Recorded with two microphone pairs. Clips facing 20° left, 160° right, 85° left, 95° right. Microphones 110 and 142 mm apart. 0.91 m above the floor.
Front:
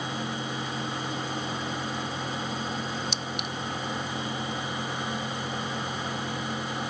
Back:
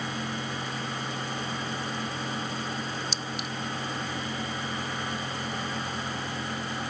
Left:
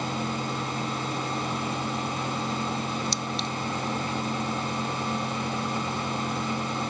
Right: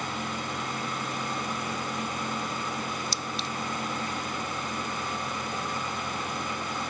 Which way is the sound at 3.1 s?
5° right.